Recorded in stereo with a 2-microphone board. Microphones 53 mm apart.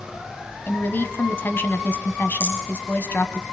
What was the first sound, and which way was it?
A woman speaking, 40° left (ahead or behind).